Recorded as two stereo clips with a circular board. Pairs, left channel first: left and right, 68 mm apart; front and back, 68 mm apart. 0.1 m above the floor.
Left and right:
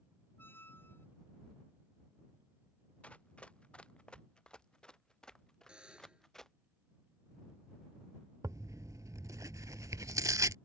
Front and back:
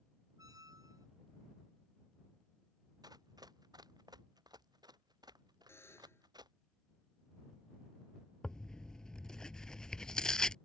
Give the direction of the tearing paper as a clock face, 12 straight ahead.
3 o'clock.